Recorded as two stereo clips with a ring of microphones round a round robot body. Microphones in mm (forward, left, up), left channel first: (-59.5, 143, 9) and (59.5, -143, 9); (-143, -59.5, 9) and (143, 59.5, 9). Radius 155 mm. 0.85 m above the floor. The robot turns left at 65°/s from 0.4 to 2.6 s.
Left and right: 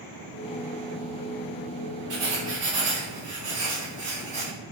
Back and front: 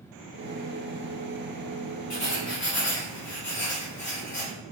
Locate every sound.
2.1 s writing: 90° right, 2 m; by 4.5 s 125° right, 2 m